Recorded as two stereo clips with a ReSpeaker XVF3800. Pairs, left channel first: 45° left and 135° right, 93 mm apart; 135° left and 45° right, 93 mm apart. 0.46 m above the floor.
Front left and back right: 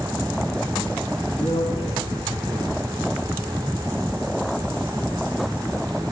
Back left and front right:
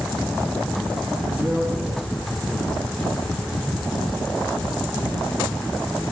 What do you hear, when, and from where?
1.3 s a man speaking: 50° left, 5 m